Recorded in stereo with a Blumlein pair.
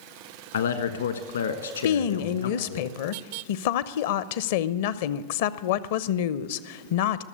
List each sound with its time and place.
0.5 s a man speaking: 65° left, 1.3 m
1.8 s a woman speaking: 50° left, 0.6 m